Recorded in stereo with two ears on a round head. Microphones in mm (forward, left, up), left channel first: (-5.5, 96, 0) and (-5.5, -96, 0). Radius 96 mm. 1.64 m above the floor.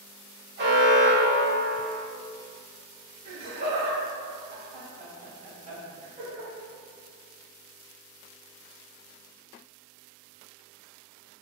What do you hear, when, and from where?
0.6 s an alarm: 55° right (ahead or behind), 1.1 m
3.2 s laughter: 30° right (ahead or behind), 1.1 m